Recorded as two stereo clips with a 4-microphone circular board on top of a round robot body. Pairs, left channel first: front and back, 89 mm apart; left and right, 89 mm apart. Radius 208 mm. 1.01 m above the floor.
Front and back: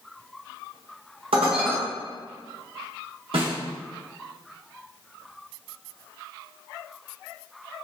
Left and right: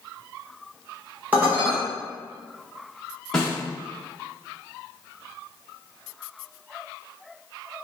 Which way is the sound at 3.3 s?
175° left.